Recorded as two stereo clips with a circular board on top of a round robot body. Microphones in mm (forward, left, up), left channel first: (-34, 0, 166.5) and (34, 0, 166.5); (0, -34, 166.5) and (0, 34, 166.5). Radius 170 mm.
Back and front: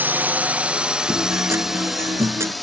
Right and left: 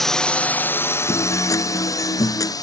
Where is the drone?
10° right; by 2.6 s 90° right.